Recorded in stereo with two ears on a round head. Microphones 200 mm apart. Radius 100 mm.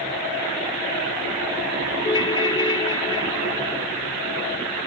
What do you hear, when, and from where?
2.0 s a ringtone: 20° left (ahead or behind), 1.0 m